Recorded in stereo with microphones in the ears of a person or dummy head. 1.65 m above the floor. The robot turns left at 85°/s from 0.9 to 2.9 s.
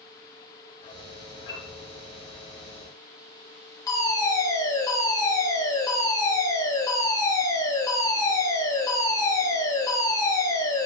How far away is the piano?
About 8 m.